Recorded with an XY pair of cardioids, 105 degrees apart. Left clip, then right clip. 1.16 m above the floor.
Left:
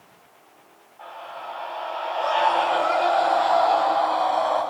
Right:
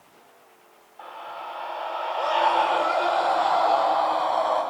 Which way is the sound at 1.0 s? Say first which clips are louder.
Even; 35° right.